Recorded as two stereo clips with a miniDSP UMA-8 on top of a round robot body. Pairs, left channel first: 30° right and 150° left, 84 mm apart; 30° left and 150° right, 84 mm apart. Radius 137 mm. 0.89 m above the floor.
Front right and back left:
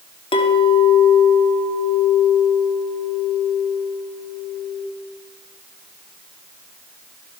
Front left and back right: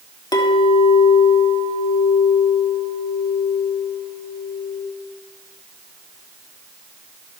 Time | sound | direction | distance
0.3 | a clink | 10° right | 1.5 m